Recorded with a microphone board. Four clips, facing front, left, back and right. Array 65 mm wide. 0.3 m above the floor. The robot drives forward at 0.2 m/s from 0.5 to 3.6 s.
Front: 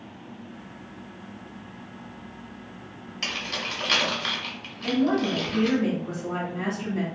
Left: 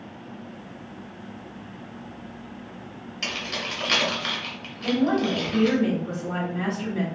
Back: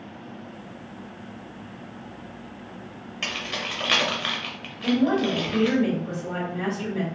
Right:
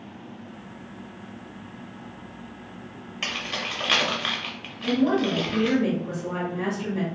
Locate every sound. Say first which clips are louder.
3.2 s keys jangling: even, back 1 dB; 130° right, 0.7 m; by 5.8 s 145° right, 0.7 m
4.8 s a woman speaking: even, back 2 dB; 155° left, 1.4 m